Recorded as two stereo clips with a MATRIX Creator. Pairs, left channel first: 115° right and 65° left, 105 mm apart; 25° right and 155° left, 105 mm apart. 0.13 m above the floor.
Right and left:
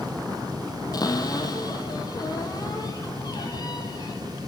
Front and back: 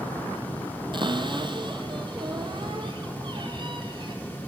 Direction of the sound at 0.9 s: 165° right.